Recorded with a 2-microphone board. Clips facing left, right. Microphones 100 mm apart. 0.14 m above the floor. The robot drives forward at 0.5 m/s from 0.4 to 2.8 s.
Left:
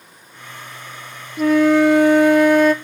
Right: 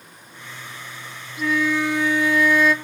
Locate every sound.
1.4 s a flute: 55° left (ahead or behind), 0.7 m; by 2.7 s 50° left (ahead or behind), 0.7 m